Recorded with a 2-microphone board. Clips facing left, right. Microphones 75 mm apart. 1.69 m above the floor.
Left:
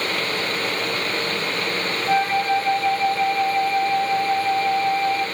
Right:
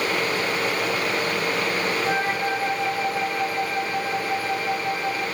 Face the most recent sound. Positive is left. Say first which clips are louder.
# left 4 dB
turn(degrees=-55)  # may be behind; listen again after turning